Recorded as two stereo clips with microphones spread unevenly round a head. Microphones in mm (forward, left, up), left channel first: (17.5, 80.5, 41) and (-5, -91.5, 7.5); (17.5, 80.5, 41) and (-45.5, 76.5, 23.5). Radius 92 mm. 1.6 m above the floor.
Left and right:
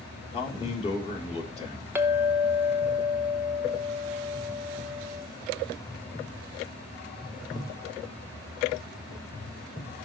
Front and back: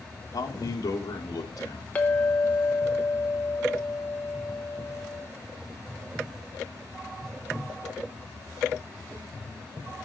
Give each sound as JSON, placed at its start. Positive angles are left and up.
{"t": 0.3, "sound": "a man speaking", "azimuth_deg": 25, "distance_m": 1.5}
{"t": 1.9, "sound": "a clink", "azimuth_deg": -10, "distance_m": 0.6}